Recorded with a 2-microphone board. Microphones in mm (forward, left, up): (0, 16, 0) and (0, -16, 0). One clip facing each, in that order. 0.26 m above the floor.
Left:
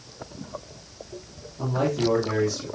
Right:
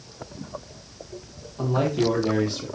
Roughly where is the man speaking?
Right.